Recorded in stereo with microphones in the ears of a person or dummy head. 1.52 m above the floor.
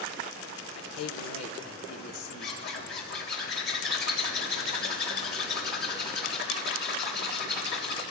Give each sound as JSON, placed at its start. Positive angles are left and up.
{"t": 0.8, "sound": "a man speaking", "side_deg": 80, "distance_m": 1.2}
{"t": 2.4, "sound": "a zipper", "side_deg": 60, "distance_m": 3.5}